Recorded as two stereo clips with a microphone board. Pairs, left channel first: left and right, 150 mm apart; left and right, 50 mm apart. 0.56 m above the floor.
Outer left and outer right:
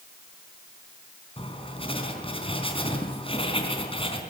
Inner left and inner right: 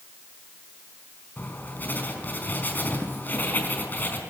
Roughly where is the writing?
Left.